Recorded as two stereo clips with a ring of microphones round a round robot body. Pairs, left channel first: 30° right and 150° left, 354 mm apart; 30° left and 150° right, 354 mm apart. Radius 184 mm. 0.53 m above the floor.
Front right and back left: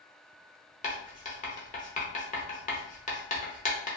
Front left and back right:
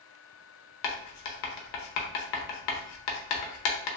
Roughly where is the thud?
No thud in this recording.